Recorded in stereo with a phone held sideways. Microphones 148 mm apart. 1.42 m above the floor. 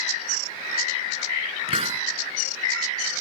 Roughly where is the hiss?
Right.